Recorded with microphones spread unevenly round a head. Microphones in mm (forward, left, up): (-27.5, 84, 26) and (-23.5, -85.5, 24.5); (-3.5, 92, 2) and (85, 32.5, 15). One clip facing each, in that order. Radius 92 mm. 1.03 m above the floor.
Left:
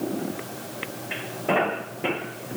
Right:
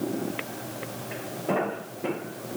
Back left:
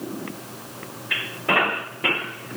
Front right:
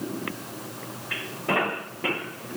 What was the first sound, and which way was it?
Only background noise.